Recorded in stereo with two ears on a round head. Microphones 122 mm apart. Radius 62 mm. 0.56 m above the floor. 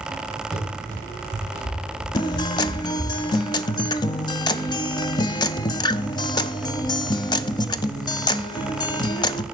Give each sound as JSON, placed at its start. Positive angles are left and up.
{"t": 0.5, "sound": "running footsteps", "side_deg": 5, "distance_m": 7.0}
{"t": 2.1, "sound": "a guitar", "side_deg": 35, "distance_m": 0.5}